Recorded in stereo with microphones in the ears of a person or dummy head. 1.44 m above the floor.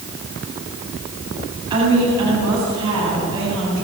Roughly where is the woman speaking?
Right.